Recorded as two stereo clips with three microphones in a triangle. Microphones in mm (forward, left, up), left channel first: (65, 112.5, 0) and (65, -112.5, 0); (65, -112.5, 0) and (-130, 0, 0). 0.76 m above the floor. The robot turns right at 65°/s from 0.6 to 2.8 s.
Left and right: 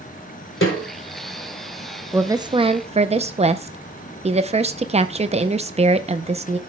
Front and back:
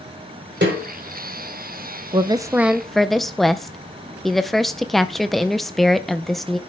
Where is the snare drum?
115° left, 3.5 m; by 0.8 s 125° left, 3.5 m.